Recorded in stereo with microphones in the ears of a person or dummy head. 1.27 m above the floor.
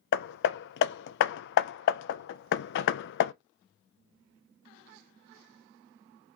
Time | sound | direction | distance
0.1 | hammering | 65° left (ahead or behind) | 0.5 m